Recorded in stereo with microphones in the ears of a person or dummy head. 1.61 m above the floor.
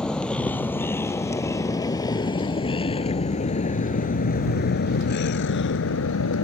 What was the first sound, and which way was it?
A vehicle, 5° left (ahead or behind).